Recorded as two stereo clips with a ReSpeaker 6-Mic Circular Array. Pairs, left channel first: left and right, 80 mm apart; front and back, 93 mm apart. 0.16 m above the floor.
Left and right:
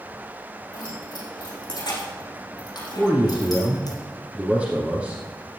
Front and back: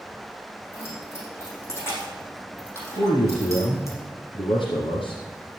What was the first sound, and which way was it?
Keys jangling, 60° left.